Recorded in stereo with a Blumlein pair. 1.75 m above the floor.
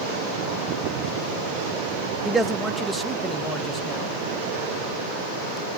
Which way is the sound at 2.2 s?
10° right.